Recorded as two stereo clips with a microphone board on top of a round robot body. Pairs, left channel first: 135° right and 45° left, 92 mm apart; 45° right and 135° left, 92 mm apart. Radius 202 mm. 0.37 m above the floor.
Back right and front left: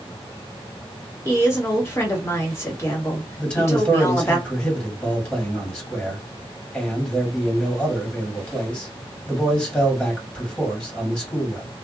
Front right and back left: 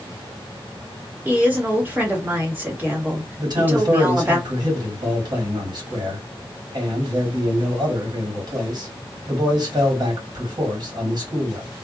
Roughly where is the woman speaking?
Behind.